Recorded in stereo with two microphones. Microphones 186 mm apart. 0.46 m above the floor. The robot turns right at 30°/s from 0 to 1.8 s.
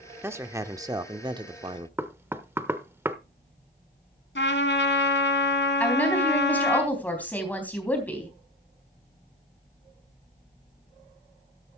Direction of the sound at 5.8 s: 10° left (ahead or behind).